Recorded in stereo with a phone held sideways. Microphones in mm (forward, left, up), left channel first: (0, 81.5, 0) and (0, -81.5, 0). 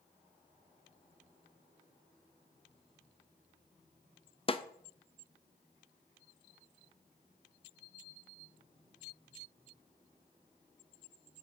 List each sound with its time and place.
4.5 s a snare drum: 35° left (ahead or behind), 0.5 m